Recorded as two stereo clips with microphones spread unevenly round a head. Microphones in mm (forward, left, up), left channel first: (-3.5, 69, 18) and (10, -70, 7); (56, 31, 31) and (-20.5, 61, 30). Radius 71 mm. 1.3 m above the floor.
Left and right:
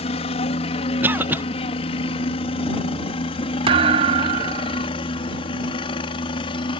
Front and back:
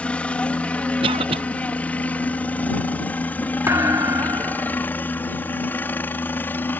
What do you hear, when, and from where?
0.0 s a helicopter: 50° left; by 6.8 s 45° left
1.0 s a cough: 160° right
3.7 s a thud: 135° right